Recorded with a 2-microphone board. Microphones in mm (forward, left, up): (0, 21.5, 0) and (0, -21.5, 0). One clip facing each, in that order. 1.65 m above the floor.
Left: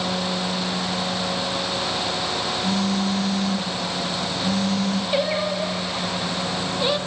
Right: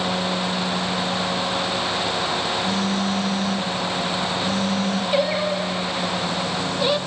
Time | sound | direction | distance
2.6 | a phone buzzing | 70° left (ahead or behind) | 3 m
5.1 | singing | centre (ahead or behind) | 1.2 m